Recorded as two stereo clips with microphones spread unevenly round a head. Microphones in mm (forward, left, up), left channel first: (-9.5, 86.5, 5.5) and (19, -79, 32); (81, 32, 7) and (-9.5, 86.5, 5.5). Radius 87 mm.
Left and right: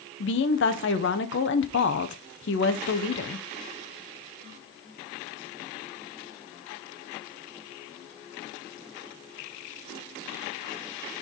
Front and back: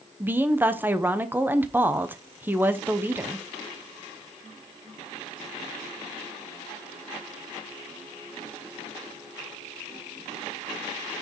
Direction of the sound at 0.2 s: 75° left.